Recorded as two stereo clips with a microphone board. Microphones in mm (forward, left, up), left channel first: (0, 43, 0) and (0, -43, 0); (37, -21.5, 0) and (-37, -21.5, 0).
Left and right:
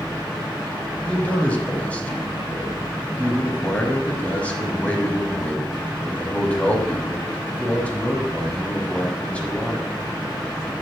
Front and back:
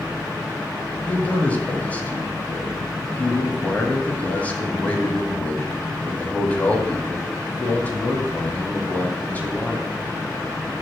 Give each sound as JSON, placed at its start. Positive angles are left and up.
{"t": 1.1, "sound": "a man speaking", "azimuth_deg": 35, "distance_m": 1.0}